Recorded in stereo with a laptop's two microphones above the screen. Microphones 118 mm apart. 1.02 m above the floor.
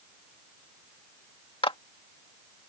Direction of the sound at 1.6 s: 50° left (ahead or behind).